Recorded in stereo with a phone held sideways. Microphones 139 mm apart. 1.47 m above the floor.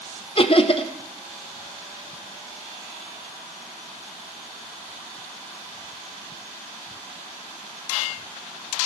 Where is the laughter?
40° left (ahead or behind), 0.9 m.